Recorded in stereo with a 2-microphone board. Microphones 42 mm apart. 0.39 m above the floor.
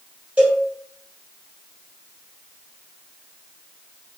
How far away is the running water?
No running water in this recording.